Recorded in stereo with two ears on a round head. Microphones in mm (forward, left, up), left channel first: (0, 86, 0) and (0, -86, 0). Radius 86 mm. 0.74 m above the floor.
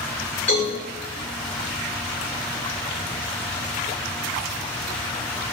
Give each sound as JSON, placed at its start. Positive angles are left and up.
{"t": 0.5, "sound": "a cowbell", "side_deg": 40, "distance_m": 1.9}